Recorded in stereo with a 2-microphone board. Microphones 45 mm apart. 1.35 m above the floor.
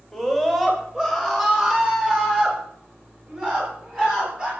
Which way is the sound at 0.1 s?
5° right (ahead or behind).